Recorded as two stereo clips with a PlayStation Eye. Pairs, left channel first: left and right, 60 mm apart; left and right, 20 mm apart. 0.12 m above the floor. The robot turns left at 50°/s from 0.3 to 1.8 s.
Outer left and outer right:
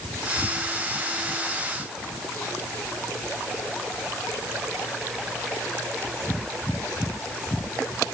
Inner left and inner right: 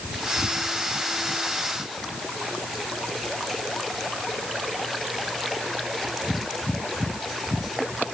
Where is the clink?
I don't hear a clink.